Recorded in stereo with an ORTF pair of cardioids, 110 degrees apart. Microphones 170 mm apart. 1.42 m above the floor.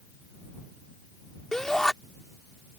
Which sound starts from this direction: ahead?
A shout, at 1.5 s.